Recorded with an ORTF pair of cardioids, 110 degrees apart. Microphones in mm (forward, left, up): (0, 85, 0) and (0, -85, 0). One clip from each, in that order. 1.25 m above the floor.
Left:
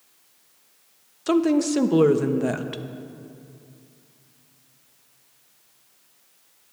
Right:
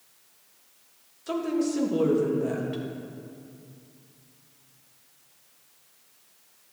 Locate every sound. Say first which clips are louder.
1.3 s a woman speaking: left 7 dB; 45° left, 0.5 m